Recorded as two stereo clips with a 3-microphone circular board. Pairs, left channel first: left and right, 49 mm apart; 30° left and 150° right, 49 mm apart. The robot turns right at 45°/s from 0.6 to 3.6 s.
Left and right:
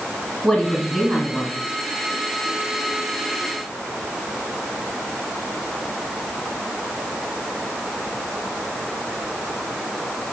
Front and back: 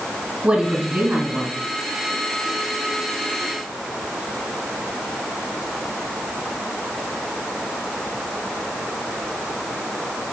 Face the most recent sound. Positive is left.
turn(degrees=-50)